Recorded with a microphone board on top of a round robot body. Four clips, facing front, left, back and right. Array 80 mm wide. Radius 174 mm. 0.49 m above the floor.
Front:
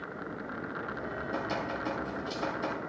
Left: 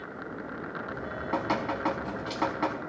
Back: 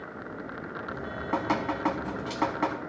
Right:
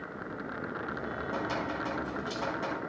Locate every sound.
0.9 s dripping: 155° left, 1.1 m